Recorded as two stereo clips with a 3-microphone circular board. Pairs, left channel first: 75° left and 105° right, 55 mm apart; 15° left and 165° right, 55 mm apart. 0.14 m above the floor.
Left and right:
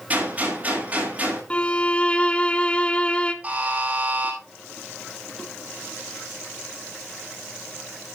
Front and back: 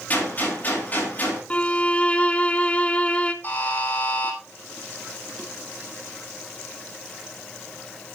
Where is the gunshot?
40° right, 9 m.